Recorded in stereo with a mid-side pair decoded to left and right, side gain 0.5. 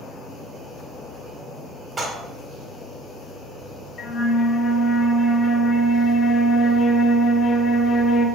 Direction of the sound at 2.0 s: 35° right.